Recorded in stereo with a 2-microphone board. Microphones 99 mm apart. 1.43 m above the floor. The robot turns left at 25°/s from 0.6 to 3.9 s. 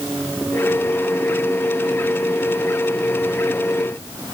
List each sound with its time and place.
Only background noise.